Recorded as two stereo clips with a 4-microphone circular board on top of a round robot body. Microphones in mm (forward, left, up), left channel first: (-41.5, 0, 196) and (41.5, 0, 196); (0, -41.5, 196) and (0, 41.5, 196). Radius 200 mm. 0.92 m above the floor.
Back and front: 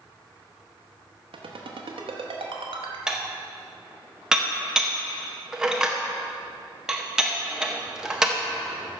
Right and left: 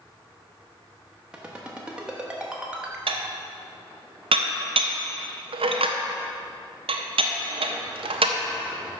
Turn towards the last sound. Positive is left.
turn(degrees=85)